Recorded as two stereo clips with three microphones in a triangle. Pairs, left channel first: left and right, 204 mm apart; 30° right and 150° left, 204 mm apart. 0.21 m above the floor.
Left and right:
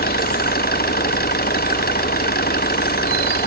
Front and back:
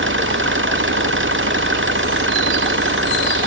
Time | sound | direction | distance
0.0 | an engine running | 130° left | ?